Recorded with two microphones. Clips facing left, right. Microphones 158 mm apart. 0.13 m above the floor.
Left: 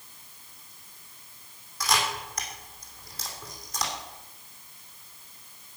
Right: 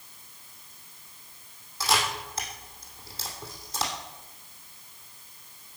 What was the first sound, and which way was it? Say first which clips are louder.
A camera shutter: right 1 dB; 30° right (ahead or behind).